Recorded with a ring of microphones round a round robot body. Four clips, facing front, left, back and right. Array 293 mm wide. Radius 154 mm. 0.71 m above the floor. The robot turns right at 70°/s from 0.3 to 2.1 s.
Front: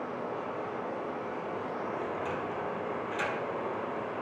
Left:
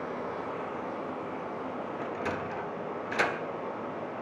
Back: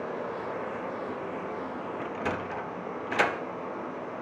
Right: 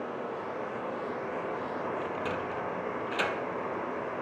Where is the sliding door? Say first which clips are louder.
Even, back 1 dB; 165° left, 0.8 m; by 3.4 s 170° left, 0.8 m.